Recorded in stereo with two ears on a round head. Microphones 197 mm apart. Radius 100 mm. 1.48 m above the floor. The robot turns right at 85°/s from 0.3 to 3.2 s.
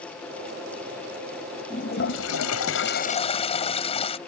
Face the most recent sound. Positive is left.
turn(degrees=150)